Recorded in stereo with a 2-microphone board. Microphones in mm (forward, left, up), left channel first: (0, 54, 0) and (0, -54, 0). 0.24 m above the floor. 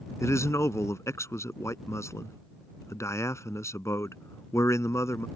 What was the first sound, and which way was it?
A man speaking, 25° left (ahead or behind).